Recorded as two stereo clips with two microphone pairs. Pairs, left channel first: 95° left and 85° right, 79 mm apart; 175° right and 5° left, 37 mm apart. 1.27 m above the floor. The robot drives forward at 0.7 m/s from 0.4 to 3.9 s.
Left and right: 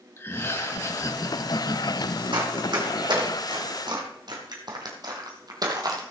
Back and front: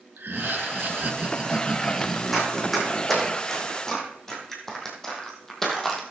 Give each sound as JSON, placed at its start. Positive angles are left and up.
{"t": 0.2, "sound": "laughter", "azimuth_deg": 35, "distance_m": 1.5}
{"t": 2.3, "sound": "running footsteps", "azimuth_deg": -85, "distance_m": 3.5}